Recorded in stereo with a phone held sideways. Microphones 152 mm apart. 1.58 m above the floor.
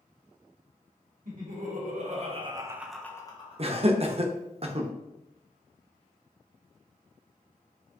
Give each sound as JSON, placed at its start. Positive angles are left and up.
{"t": 1.2, "sound": "laughter", "side_deg": -70, "distance_m": 1.3}
{"t": 3.6, "sound": "laughter", "side_deg": -40, "distance_m": 0.6}